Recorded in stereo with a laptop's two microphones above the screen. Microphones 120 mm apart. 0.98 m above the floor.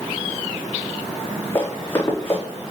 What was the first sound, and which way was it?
Running footsteps, 15° left (ahead or behind).